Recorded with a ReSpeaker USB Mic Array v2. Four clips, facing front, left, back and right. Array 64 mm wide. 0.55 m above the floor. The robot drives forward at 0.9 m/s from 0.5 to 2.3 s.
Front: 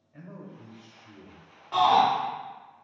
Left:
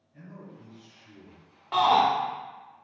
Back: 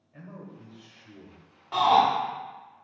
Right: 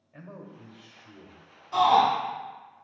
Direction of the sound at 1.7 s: 100° left.